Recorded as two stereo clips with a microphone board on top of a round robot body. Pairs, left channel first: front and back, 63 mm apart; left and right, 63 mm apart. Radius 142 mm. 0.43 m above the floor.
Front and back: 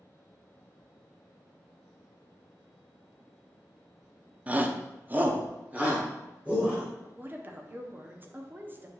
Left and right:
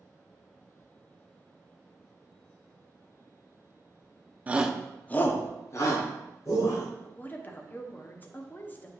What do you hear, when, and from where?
4.5 s a shout: 135° right, 1.0 m; by 6.8 s 110° left, 2.5 m
7.0 s a woman speaking: 135° left, 1.2 m